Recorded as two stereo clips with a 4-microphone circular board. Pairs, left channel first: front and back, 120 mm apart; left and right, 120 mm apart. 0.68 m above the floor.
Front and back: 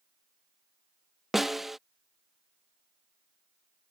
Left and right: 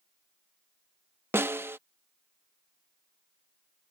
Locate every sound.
1.3 s a snare drum: 95° right